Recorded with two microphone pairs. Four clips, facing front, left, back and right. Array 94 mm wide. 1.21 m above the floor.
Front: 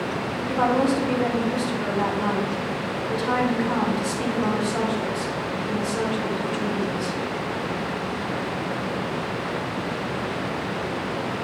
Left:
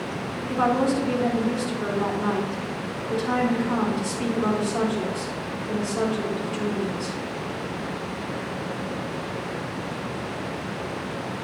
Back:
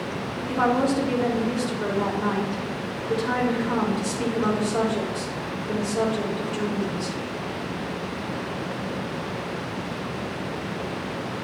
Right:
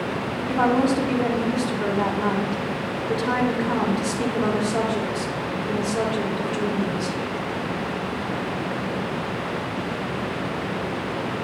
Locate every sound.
0.5 s a woman speaking: 95° right, 3 m